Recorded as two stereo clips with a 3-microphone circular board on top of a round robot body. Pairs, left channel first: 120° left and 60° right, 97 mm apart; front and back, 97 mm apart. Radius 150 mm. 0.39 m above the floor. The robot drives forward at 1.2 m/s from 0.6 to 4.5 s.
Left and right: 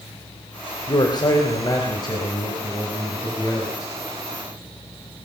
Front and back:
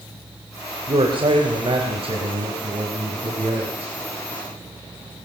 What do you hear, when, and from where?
0.9 s a man speaking: 160° left, 3 m; by 3.9 s 170° left, 6.5 m